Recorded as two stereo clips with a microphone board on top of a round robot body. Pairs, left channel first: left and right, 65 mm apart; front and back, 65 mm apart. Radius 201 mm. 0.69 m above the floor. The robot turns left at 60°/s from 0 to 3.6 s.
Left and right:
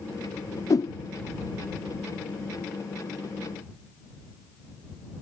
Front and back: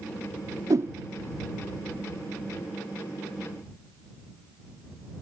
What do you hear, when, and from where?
0.7 s a whoosh: 135° left; by 0.9 s 120° left